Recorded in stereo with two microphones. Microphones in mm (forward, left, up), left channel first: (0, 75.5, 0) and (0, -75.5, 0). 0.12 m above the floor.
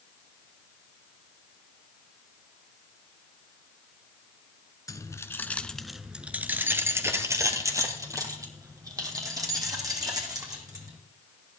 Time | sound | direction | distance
4.9 | keys jangling | 20° left (ahead or behind) | 1.0 m